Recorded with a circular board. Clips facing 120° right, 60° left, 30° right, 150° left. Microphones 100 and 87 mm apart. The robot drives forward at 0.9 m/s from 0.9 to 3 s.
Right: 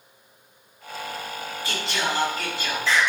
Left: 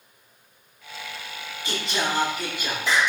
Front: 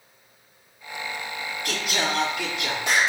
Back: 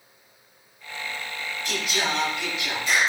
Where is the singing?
10° right, 7.5 m.